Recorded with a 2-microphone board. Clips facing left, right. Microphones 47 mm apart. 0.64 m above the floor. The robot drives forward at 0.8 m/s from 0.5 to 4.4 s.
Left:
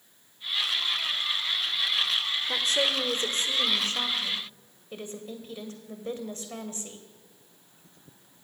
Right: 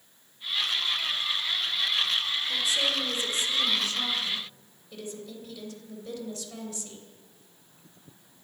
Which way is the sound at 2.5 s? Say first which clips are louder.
Left 2 dB; 55° left (ahead or behind).